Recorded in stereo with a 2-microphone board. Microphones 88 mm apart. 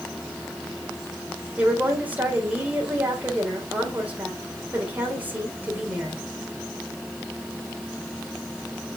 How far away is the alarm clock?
I don't hear an alarm clock.